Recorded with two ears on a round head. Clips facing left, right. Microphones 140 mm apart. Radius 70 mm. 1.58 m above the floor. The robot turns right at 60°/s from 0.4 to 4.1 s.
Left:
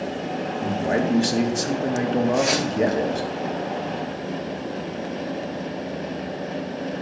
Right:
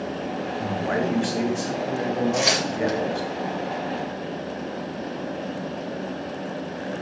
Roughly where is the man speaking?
Ahead.